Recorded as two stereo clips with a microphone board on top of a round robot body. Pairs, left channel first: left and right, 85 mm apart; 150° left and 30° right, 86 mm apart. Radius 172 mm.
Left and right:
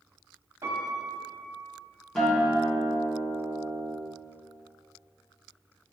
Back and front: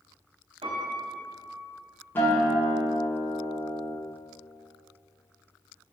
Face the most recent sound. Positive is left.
turn(degrees=175)